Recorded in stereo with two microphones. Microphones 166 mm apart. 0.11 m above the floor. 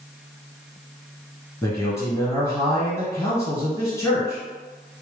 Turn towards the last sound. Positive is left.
turn(degrees=15)  # may be behind; listen again after turning